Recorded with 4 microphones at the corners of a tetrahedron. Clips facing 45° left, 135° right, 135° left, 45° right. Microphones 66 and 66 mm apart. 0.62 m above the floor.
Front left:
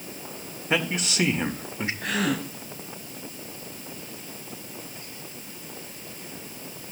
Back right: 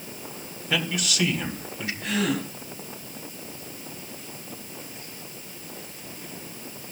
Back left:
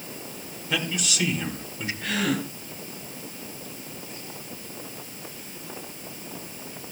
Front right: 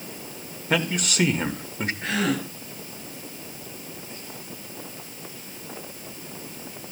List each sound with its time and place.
0.7 s a man speaking: 10° right, 1.5 m
2.0 s a gasp: 15° left, 7.5 m